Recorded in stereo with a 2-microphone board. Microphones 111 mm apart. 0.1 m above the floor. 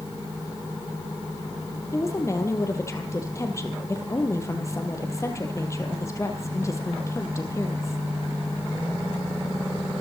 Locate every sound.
1.9 s a woman speaking: 25° left (ahead or behind), 2.5 m